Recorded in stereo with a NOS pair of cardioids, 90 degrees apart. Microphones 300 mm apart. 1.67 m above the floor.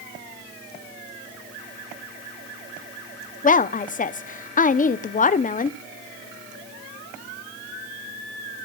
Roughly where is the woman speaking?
Ahead left.